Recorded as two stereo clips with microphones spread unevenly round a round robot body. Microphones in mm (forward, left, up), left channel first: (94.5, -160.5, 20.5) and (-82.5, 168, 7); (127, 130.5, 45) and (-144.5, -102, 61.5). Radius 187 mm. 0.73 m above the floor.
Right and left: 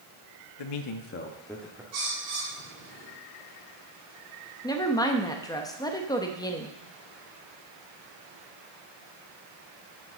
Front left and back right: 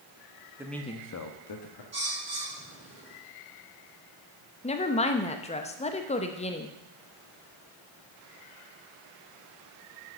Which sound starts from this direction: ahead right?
A man speaking, at 0.6 s.